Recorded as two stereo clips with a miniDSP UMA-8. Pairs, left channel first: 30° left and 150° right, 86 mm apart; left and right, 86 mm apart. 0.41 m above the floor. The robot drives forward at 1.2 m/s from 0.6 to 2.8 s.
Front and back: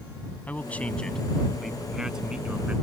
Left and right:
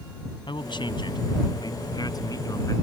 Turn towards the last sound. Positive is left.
turn(degrees=135)